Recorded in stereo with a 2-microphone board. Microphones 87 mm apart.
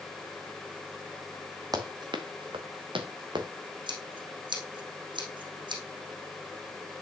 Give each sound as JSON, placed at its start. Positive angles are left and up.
{"t": 1.7, "sound": "running footsteps", "side_deg": -45, "distance_m": 1.5}
{"t": 3.9, "sound": "scissors", "side_deg": -65, "distance_m": 4.0}